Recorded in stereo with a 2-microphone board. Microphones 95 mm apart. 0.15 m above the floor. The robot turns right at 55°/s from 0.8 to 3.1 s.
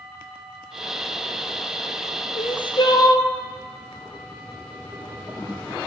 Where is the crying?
100° left, 0.8 m; by 3.3 s 140° left, 0.8 m.